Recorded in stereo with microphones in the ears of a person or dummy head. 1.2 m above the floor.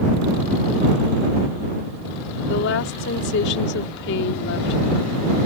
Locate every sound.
2.5 s a woman speaking: 65° left (ahead or behind)